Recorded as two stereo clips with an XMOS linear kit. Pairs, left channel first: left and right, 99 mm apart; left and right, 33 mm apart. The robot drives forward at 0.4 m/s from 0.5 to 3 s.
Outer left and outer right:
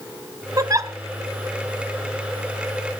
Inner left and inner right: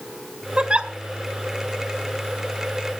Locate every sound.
0.6 s a giggle: 35° right (ahead or behind), 0.9 m